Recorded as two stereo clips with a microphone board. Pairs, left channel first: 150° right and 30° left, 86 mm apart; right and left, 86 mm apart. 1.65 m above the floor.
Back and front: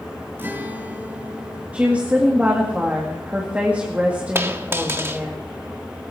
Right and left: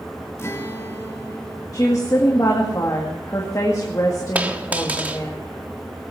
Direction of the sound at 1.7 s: 45° right.